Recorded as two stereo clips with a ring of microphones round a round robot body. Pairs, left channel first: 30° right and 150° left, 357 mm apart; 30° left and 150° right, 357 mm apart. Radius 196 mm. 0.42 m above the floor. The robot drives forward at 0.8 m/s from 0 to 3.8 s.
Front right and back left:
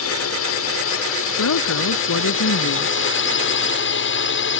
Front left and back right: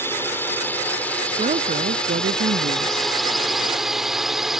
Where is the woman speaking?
75° right; by 3.1 s 90° right.